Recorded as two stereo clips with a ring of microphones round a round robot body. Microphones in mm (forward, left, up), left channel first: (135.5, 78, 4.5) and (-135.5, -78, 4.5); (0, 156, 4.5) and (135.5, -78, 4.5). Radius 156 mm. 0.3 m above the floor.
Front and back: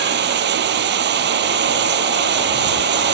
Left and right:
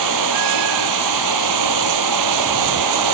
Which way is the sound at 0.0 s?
90° right.